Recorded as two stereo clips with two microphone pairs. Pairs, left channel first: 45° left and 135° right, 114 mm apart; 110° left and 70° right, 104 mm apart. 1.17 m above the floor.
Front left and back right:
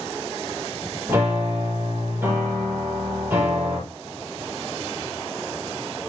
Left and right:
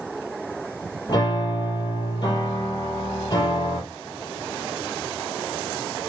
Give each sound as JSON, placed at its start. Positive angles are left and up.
{"t": 1.1, "sound": "a piano", "azimuth_deg": 155, "distance_m": 7.0}